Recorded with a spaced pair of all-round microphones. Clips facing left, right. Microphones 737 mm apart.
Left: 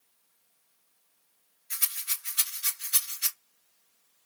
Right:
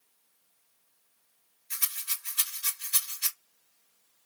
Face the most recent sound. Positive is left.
turn(degrees=20)  # may be behind; listen again after turning